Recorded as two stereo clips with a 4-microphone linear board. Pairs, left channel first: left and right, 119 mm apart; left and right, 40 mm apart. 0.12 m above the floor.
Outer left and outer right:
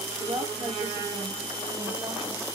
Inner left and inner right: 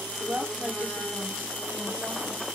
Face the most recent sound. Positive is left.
turn(degrees=-55)  # may be behind; listen again after turning